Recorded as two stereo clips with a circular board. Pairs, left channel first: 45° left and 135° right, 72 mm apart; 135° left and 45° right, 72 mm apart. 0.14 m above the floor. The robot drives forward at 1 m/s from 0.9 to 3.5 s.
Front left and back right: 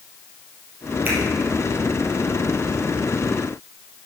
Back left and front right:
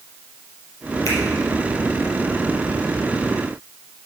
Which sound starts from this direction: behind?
A finger snap, at 1.1 s.